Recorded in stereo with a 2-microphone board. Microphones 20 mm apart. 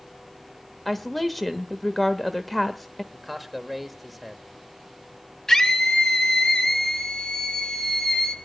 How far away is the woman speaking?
About 0.8 m.